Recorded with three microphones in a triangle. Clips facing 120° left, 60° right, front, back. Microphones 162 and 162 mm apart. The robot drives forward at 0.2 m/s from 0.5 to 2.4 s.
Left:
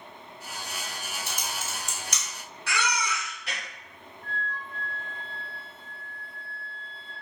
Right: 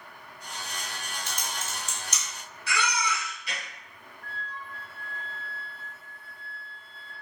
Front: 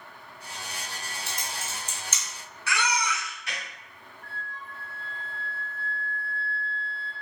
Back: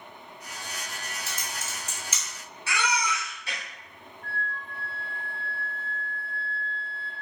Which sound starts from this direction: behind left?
A baby crying, at 2.7 s.